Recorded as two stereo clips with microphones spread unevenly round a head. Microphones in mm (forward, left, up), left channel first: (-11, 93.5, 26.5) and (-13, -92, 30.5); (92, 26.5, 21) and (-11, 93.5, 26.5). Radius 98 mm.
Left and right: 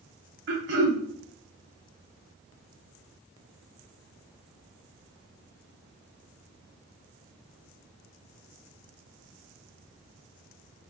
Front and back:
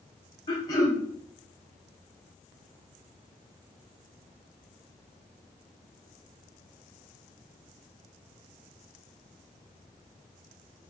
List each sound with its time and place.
0.5 s throat clearing: 100° right, 1.0 m